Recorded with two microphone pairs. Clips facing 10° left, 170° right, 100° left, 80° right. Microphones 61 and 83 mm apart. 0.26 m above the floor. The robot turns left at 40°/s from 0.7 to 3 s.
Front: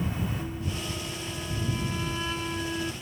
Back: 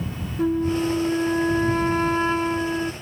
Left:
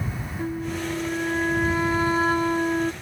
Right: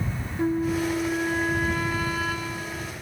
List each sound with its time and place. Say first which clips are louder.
0.4 s a flute: back 14 dB, right 5 dB; 150° right; by 2.9 s 120° left